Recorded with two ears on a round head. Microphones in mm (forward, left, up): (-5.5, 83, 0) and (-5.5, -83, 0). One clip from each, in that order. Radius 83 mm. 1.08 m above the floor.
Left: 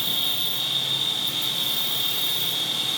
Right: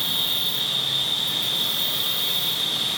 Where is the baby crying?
I don't hear a baby crying.